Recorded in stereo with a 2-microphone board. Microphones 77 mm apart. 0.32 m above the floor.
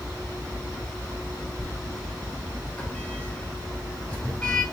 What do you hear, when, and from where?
1.6 s a sliding door: 15° left (ahead or behind), 3.5 m